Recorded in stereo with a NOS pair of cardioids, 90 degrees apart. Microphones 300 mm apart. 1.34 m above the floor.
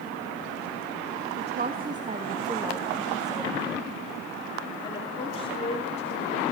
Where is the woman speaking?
35° right, 2.0 m; by 6.4 s 25° left, 4 m.